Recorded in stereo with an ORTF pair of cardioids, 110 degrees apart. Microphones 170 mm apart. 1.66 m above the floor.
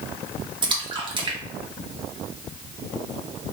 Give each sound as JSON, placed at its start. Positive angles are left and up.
{"t": 0.6, "sound": "a splash", "azimuth_deg": -30, "distance_m": 0.9}